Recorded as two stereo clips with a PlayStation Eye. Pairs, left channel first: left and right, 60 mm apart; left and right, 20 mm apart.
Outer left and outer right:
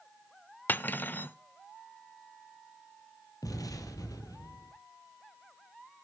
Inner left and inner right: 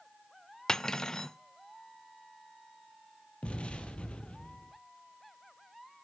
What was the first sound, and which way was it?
Cutlery clinking, 30° left (ahead or behind).